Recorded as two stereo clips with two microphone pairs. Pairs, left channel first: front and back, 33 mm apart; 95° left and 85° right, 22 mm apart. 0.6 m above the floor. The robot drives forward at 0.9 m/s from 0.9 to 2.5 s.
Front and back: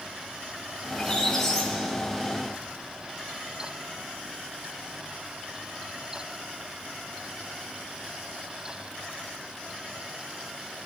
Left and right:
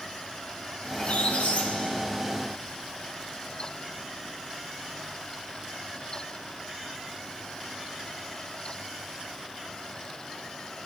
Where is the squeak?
70° left, 3.5 m; by 2.8 s 90° left, 3.5 m.